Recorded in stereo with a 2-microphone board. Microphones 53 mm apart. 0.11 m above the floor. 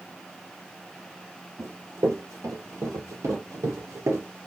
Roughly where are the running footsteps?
Right.